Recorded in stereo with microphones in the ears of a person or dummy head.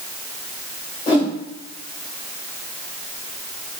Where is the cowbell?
No cowbell in this recording.